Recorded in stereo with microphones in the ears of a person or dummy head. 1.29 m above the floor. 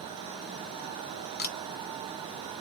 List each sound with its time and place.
1.4 s a camera shutter: 45° left (ahead or behind), 0.7 m